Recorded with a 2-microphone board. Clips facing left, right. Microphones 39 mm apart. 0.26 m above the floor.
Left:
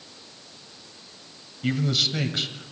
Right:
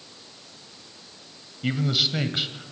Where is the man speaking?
10° right (ahead or behind), 1.1 m.